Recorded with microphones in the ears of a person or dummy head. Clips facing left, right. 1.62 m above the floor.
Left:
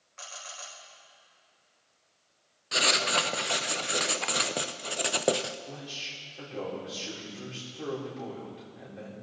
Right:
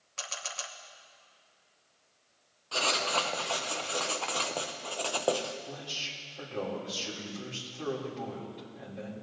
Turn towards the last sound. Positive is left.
turn(degrees=10)  # may be behind; listen again after turning